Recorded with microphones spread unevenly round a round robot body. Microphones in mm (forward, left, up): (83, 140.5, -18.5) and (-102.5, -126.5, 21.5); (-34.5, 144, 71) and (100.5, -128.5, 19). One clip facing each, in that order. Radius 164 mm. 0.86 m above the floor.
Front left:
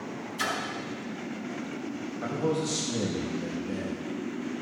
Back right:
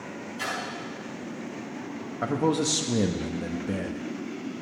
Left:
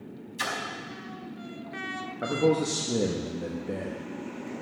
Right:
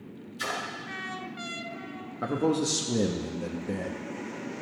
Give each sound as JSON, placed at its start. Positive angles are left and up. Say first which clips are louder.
{"t": 0.4, "sound": "a splash", "louder": "front left 2 dB, even", "azimuth_deg": 115, "distance_m": 4.0}
{"t": 2.2, "sound": "a man speaking", "louder": "back right 4 dB, left 2 dB", "azimuth_deg": -140, "distance_m": 1.1}